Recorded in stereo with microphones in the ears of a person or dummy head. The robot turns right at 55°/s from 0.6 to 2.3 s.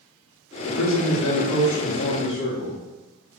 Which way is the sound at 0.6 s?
60° left.